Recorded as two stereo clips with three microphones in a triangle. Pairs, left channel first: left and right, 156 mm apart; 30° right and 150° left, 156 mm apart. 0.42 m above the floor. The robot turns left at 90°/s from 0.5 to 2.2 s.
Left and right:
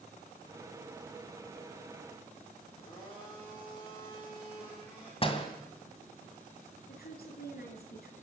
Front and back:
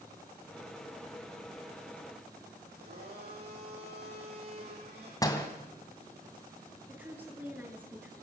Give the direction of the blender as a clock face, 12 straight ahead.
7 o'clock.